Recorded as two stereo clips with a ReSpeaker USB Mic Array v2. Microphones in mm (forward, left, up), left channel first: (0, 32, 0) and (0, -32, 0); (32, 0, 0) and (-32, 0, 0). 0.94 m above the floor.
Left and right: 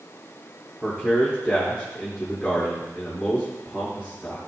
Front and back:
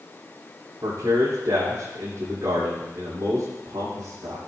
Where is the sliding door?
No sliding door in this recording.